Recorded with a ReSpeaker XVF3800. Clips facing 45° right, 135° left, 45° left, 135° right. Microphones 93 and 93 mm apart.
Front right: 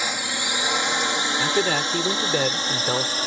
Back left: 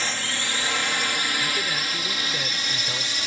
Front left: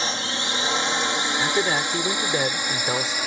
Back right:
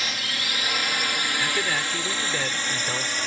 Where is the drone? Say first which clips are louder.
Front right 2 dB, front left 4 dB; 20° left; by 3.3 s 30° right.